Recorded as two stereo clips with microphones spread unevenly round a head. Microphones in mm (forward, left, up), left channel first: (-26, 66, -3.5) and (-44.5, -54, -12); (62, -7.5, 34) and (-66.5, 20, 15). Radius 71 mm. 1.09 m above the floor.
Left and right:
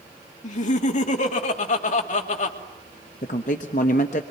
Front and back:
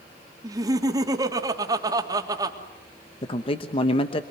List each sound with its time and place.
0.4 s laughter: 105° left, 3 m
3.2 s a man speaking: 40° left, 1.1 m